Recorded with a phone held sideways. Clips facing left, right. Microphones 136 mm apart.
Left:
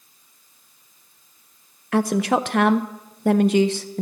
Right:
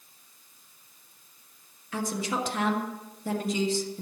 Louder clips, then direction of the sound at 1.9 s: Left 11 dB; 65° left (ahead or behind).